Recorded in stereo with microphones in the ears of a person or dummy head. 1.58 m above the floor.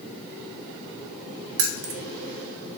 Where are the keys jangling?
60° right (ahead or behind), 0.8 m.